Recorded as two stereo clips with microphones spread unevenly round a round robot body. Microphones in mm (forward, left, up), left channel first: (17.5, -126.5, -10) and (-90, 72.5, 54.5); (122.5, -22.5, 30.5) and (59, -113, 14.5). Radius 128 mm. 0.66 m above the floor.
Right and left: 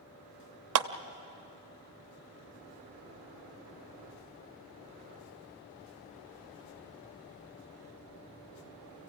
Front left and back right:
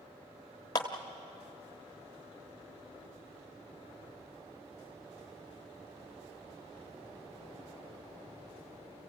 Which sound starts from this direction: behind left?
A clap, at 0.8 s.